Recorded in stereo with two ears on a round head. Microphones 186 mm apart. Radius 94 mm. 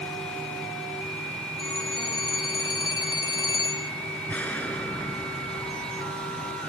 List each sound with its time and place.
1.6 s a phone ringing: 20° left (ahead or behind)
4.3 s an explosion: 5° left (ahead or behind)